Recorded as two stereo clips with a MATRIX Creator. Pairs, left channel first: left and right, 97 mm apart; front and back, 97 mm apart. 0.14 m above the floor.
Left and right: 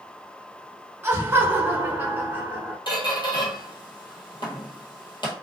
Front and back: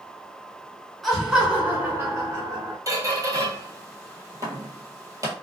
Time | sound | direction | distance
1.0 | laughter | 85° right | 1.1 m
2.9 | a squeak | 125° left | 1.1 m